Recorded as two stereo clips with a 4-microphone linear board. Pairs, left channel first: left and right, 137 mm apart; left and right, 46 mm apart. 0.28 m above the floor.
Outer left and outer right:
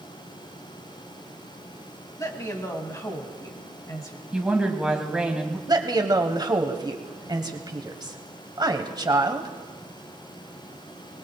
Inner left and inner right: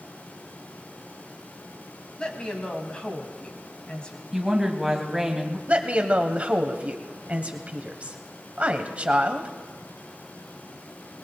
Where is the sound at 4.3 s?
10° right (ahead or behind), 2 m.